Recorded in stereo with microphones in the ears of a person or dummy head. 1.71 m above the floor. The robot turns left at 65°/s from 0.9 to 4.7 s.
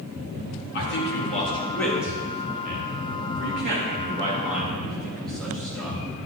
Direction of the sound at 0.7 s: 65° left (ahead or behind).